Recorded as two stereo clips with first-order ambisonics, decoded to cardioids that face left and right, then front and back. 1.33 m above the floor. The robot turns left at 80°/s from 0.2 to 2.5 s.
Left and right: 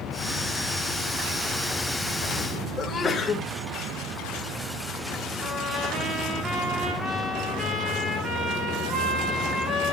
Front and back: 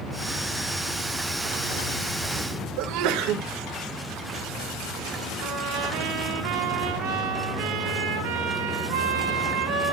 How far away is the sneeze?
About 1.7 m.